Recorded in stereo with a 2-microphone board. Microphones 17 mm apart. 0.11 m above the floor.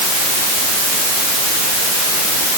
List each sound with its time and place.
Only background noise.